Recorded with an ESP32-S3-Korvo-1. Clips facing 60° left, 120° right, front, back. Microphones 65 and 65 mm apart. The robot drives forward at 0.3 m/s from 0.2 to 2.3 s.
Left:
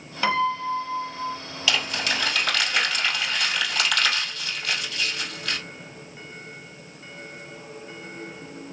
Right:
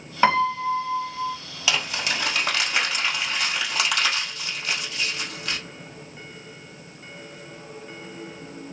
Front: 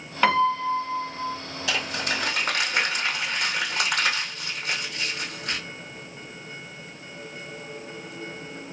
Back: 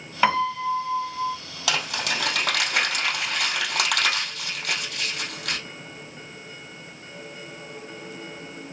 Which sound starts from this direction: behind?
Crumpling, at 1.7 s.